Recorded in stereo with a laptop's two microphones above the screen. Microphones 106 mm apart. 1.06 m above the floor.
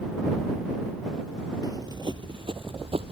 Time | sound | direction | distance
1.6 | running footsteps | 35° right (ahead or behind) | ?